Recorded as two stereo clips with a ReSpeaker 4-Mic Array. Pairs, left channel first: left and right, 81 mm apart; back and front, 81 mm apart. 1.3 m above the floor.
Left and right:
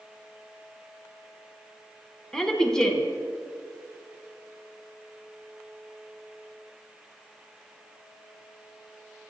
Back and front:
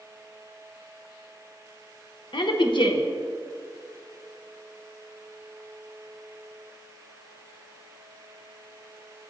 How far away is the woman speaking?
About 0.8 m.